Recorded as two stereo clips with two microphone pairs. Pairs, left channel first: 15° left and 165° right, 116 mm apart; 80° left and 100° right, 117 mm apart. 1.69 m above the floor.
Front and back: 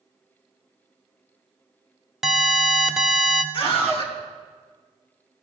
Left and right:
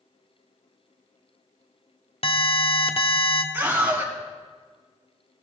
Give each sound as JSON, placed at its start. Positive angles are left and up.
{"t": 2.2, "sound": "an alarm", "azimuth_deg": 110, "distance_m": 0.7}
{"t": 3.5, "sound": "a scream", "azimuth_deg": -25, "distance_m": 3.0}